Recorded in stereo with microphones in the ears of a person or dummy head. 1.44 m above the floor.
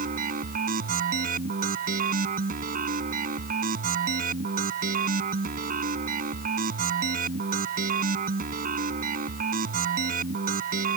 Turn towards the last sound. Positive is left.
turn(degrees=-50)  # may be behind; listen again after turning